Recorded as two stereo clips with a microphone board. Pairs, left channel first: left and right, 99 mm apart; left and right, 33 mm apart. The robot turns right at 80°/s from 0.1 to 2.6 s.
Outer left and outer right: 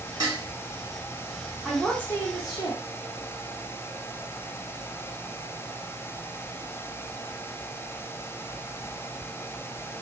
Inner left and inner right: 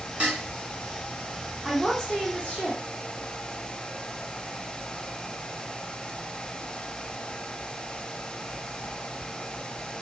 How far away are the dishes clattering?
About 1.3 m.